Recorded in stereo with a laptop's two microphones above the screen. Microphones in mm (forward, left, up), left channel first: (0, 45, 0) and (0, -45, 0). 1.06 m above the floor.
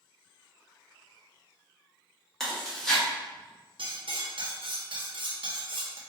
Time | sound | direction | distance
2.4 | chewing | 5° left (ahead or behind) | 1.5 m
3.8 | cutlery clinking | 65° right (ahead or behind) | 0.8 m